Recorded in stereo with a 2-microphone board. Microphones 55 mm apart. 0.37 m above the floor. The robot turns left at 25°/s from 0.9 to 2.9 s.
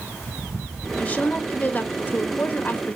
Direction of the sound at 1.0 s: 130° left.